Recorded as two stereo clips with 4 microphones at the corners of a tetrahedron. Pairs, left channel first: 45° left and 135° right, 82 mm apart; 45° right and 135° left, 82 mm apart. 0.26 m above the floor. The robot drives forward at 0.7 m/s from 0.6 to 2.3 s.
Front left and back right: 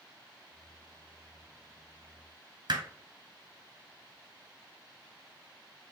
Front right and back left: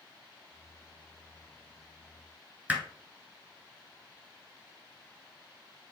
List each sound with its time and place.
2.7 s hammering: 150° right, 0.9 m